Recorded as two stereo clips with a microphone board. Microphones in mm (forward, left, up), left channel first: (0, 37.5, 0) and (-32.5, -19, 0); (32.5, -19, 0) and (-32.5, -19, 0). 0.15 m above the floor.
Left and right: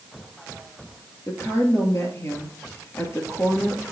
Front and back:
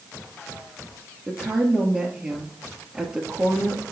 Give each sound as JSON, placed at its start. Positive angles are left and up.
{"t": 1.3, "sound": "a woman speaking", "azimuth_deg": 105, "distance_m": 2.5}